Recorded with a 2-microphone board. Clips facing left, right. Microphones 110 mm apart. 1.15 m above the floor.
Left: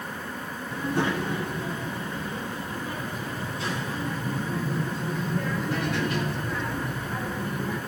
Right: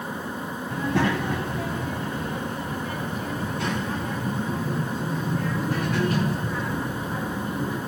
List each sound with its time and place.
0.7 s a child speaking: 85° right, 5.5 m; by 7.8 s 35° right (ahead or behind), 9.5 m